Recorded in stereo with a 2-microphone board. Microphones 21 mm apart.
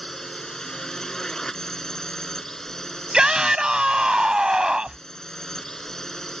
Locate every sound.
0.0 s a drone: 30° left (ahead or behind)
3.1 s a shout: 45° right (ahead or behind)